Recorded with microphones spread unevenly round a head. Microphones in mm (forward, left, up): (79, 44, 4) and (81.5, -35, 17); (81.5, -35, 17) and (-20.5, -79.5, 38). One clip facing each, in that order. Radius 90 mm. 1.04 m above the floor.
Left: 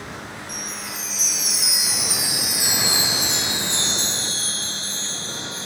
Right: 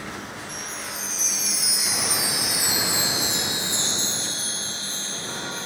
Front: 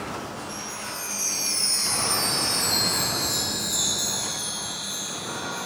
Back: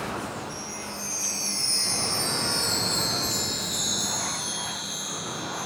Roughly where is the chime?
Left.